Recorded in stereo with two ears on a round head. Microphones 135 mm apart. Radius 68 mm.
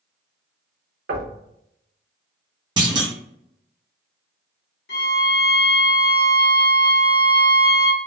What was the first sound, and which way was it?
Knocking, 75° right (ahead or behind).